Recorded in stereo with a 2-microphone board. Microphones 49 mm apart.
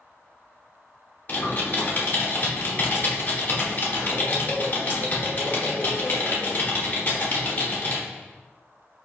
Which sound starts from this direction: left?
Typing on a keyboard, at 1.3 s.